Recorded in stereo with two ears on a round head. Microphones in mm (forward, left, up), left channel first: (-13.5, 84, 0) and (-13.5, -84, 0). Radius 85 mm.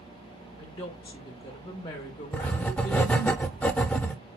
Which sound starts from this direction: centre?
Writing, at 2.3 s.